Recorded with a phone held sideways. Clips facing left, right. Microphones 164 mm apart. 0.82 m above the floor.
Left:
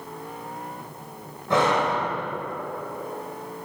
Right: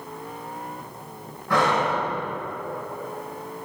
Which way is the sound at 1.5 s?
25° left (ahead or behind).